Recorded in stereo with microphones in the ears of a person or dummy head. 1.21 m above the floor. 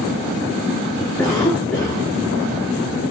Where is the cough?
5° left (ahead or behind), 2.5 m.